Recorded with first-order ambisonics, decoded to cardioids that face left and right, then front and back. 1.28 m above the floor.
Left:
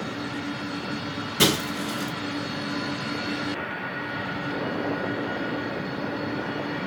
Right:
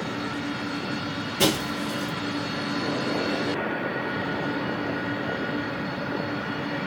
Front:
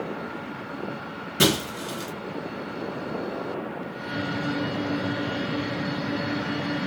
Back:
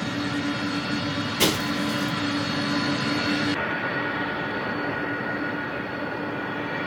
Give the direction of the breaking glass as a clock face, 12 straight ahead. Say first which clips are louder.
Left 2 dB, front 1 dB; 10 o'clock.